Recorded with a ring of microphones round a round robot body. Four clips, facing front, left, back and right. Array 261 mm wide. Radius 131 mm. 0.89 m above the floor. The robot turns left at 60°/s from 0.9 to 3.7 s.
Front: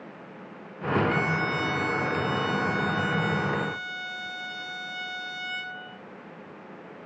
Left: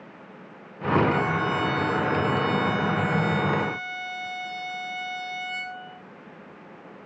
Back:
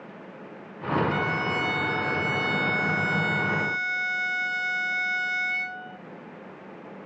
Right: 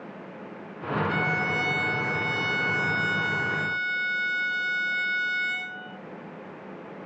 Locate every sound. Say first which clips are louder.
1.1 s a violin: left 3 dB, even; 25° right, 1.9 m; by 6.0 s 175° left, 1.9 m